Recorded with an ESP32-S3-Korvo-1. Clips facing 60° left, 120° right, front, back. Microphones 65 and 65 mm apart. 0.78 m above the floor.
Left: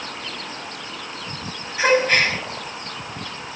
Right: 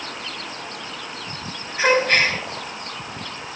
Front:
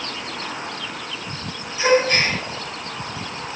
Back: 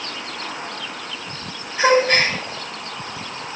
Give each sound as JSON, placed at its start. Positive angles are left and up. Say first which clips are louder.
{"t": 1.8, "sound": "a gasp", "louder": "even, back 2 dB", "azimuth_deg": 140, "distance_m": 8.0}